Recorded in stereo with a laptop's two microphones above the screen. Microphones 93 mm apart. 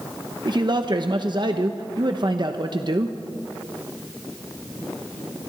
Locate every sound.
0.5 s a man speaking: 50° right (ahead or behind), 1.0 m